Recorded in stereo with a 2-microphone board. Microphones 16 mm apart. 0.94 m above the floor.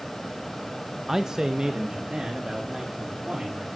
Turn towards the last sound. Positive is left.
turn(degrees=-80)